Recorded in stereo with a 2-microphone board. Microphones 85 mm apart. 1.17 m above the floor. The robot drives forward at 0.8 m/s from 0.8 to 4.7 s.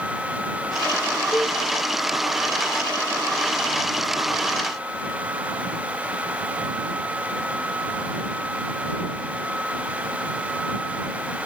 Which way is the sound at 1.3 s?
15° left (ahead or behind).